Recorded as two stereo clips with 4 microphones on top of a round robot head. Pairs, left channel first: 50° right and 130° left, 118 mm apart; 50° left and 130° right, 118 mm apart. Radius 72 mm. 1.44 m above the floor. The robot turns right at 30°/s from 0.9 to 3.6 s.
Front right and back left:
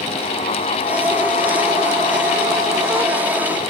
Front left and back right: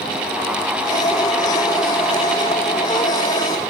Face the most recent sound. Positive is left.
No sound to turn to.